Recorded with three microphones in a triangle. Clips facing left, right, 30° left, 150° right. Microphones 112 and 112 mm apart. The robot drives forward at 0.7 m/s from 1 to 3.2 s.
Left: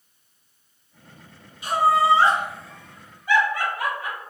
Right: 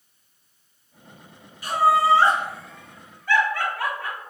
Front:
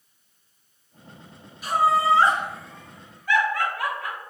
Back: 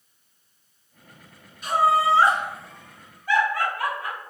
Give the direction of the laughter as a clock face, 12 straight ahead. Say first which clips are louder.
Even, even; 8 o'clock.